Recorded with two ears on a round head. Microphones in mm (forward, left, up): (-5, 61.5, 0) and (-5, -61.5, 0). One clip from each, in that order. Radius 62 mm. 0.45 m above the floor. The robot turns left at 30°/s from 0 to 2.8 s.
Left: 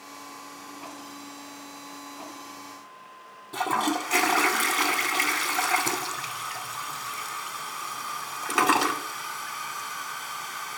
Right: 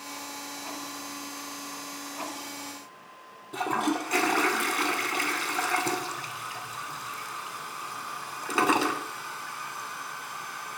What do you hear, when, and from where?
3.5 s a toilet flushing: 30° left (ahead or behind), 0.7 m